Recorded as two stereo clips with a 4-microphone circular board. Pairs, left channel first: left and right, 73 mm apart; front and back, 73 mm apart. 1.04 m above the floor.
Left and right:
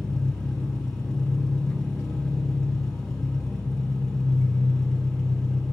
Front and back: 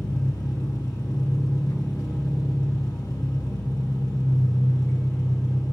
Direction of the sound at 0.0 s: 10° left.